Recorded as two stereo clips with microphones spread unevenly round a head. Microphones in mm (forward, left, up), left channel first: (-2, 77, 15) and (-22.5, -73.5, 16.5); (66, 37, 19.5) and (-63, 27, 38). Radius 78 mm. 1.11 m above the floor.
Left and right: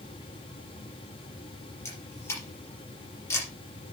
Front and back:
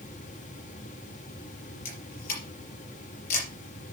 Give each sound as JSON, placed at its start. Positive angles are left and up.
{"t": 1.9, "sound": "a camera shutter", "azimuth_deg": 10, "distance_m": 4.5}